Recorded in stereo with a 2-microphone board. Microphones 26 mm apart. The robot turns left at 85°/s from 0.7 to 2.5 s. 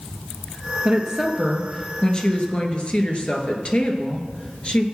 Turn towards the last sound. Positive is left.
turn(degrees=95)